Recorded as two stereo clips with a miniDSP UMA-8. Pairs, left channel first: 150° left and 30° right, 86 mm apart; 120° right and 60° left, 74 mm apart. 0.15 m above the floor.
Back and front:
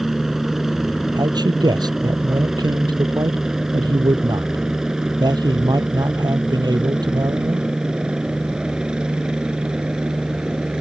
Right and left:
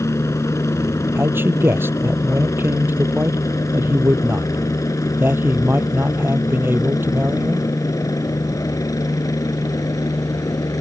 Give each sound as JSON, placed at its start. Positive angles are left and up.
{"t": 0.0, "sound": "a helicopter", "azimuth_deg": -115}
{"t": 1.1, "sound": "a man speaking", "azimuth_deg": 0}